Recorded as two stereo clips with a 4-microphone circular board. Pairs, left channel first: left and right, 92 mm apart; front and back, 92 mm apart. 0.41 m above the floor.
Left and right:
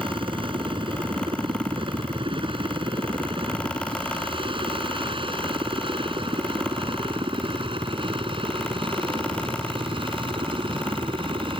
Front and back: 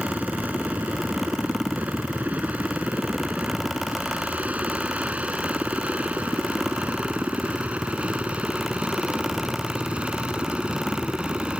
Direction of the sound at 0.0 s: 105° right.